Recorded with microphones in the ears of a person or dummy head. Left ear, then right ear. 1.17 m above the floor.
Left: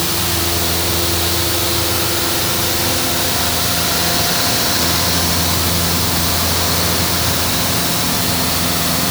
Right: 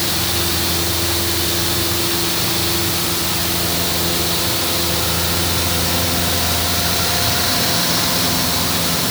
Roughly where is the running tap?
No running tap in this recording.